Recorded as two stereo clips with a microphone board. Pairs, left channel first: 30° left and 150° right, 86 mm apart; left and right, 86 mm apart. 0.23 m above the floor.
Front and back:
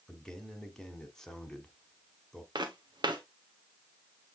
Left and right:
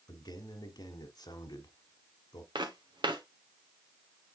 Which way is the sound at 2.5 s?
120° right.